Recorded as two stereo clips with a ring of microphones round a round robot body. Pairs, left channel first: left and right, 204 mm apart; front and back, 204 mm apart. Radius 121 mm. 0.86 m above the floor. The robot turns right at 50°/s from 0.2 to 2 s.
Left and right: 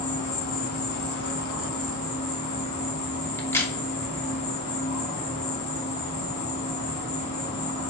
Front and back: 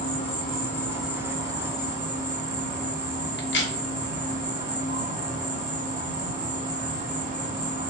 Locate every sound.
0.0 s an insect: 50° left, 2.5 m; by 7.9 s 140° left, 2.5 m
3.4 s a crack: 15° left, 1.2 m